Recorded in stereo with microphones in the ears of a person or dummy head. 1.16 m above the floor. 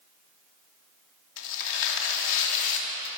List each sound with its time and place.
1.4 s tearing paper: 65° left (ahead or behind), 3 m